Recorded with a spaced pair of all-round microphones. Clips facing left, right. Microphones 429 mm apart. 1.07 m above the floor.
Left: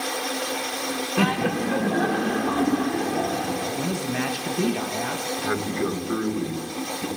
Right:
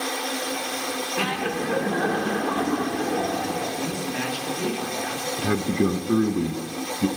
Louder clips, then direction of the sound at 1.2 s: Left 5 dB; 65° left (ahead or behind).